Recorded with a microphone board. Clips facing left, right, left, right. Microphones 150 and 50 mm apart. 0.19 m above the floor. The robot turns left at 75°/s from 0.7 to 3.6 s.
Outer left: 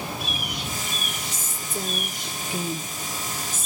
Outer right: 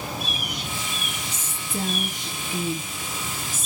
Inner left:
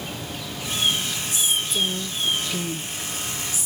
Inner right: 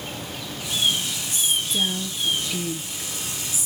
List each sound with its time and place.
1.3 s a woman speaking: 70° right, 4.5 m; by 3.7 s 120° left, 4.5 m